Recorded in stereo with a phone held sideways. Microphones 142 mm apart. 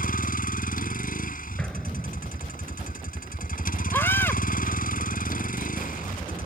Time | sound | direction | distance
0.0 | a vehicle | 85° left | ?
1.6 | an explosion | 5° left (ahead or behind) | ?
3.9 | a scream | 15° left (ahead or behind) | ?